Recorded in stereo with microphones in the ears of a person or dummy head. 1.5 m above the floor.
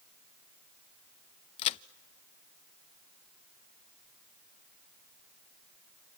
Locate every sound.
1.6 s a crack: 35° left (ahead or behind), 0.6 m